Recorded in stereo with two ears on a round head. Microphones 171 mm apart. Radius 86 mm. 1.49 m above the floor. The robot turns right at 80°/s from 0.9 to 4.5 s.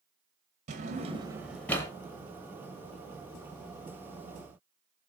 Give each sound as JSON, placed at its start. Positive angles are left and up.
{"t": 0.7, "sound": "a drawer", "side_deg": -35, "distance_m": 0.8}